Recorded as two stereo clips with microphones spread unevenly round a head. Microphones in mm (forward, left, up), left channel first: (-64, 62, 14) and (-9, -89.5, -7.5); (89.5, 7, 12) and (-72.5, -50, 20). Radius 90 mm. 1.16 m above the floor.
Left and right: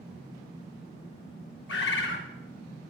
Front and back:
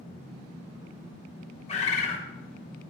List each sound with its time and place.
1.7 s a bird: 75° left, 1.6 m